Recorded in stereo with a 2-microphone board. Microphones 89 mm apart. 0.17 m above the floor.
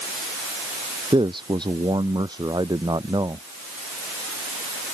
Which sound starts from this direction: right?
A man speaking, at 1.1 s.